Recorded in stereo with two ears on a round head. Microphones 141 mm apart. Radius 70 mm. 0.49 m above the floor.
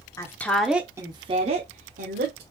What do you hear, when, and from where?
0.2 s a woman speaking: 20° left (ahead or behind), 0.9 m; by 2.4 s 60° right (ahead or behind), 1.4 m